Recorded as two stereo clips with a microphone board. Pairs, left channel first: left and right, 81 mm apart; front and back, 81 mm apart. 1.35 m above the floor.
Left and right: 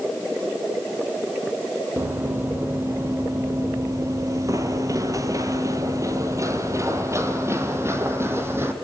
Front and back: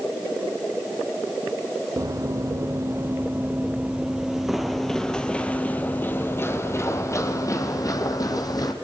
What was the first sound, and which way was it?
Running footsteps, 150° right.